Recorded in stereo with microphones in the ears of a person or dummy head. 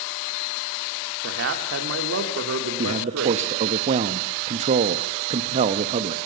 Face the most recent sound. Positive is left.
turn(degrees=-30)  # may be behind; listen again after turning